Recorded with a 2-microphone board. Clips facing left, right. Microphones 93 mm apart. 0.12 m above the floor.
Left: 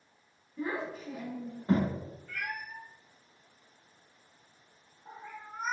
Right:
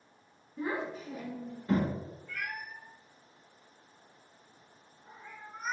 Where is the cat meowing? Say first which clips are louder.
Left 2 dB; 50° left (ahead or behind), 0.8 m.